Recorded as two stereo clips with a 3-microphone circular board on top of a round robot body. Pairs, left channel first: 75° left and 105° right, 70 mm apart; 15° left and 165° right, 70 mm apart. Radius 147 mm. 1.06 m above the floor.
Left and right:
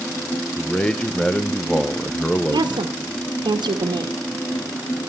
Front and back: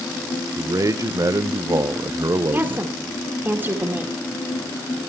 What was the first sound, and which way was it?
A man speaking, 150° left.